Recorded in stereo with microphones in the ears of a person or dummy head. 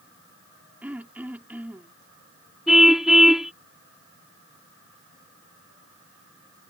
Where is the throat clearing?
10° right (ahead or behind).